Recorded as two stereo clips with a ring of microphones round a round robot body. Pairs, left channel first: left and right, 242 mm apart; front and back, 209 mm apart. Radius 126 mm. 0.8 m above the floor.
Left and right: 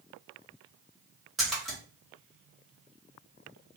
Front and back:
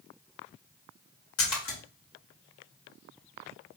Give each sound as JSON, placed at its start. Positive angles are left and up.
{"t": 1.4, "sound": "a splash", "azimuth_deg": 0, "distance_m": 1.7}